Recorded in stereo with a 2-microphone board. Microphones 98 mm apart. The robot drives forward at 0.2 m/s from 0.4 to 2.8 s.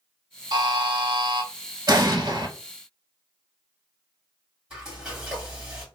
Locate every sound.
0.5 s a buzzer: 50° right (ahead or behind), 0.5 m; by 1.5 s 60° right (ahead or behind), 0.5 m
1.9 s an explosion: 50° right (ahead or behind), 0.6 m; by 2.5 s 55° right (ahead or behind), 0.6 m
4.7 s frying: 10° right (ahead or behind), 1.6 m